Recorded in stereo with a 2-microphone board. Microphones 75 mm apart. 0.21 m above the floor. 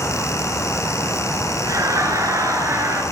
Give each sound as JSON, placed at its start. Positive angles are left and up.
{"t": 1.6, "sound": "laughter", "side_deg": -50, "distance_m": 3.0}